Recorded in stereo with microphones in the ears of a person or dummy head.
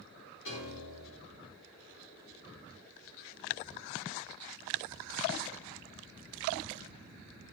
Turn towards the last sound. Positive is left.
turn(degrees=75)  # may be behind; listen again after turning